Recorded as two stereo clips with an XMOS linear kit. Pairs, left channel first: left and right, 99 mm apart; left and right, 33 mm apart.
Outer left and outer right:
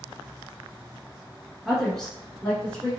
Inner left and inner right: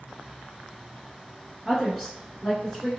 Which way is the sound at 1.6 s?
Centre (ahead or behind).